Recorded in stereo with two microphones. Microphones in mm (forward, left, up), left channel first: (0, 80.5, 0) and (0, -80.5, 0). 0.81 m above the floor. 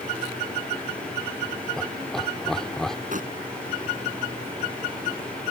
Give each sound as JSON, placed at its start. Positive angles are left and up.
{"t": 1.8, "sound": "laughter", "side_deg": 5}
{"t": 3.1, "sound": "crumpling", "side_deg": -55}